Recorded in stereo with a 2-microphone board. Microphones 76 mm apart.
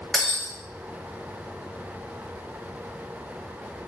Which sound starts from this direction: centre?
Breaking glass, at 0.1 s.